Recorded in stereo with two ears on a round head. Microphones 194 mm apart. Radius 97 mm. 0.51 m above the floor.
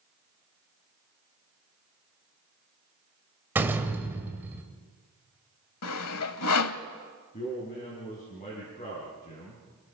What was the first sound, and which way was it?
A door slam, 10° right (ahead or behind).